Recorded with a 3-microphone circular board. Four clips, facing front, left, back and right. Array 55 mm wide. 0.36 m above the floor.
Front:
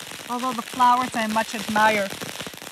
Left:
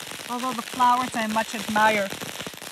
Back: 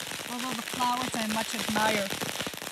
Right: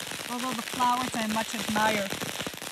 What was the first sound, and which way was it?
A woman speaking, 30° left.